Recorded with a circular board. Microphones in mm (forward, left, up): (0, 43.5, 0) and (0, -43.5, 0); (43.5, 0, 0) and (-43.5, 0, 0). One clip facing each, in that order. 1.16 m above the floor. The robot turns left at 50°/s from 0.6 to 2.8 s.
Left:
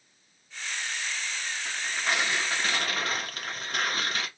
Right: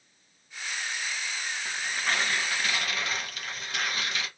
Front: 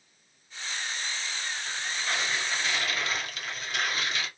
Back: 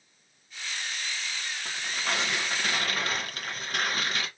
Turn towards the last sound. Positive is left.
turn(degrees=135)